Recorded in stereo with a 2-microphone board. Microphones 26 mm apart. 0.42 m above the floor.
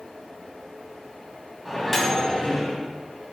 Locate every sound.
1.6 s a microwave: 5° right (ahead or behind), 2 m